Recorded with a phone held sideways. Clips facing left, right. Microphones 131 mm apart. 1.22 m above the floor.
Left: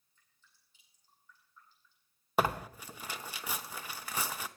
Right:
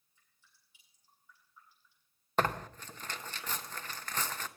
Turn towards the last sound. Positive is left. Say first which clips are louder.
# left 1 dB
turn(degrees=10)  # may be behind; listen again after turning